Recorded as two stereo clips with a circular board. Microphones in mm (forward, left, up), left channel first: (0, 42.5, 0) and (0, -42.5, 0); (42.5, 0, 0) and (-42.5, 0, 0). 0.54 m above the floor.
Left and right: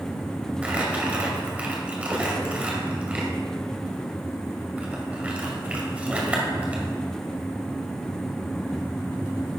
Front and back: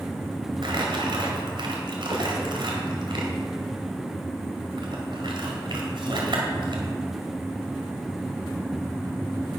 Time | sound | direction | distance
0.6 | crumpling | 165° right | 2 m